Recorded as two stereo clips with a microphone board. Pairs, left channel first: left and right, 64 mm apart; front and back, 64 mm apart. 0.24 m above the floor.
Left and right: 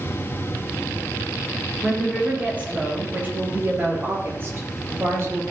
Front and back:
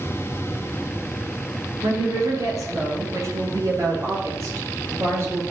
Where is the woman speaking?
160° right, 3.5 m; by 5.5 s 135° right, 4 m.